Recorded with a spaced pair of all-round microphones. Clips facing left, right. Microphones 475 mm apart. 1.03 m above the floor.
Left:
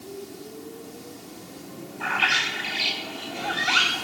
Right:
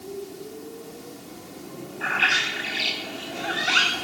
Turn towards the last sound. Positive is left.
turn(degrees=20)  # may be behind; listen again after turning